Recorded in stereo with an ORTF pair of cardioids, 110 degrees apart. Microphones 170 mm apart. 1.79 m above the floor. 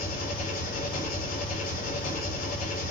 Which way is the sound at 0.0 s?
65° left.